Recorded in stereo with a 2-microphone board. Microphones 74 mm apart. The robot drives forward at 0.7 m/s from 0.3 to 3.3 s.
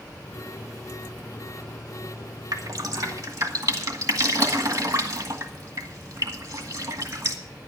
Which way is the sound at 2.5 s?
55° right (ahead or behind).